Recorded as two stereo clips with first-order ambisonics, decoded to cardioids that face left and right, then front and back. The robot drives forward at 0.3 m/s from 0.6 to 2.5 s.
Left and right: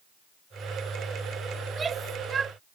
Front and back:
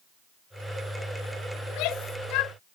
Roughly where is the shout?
Ahead.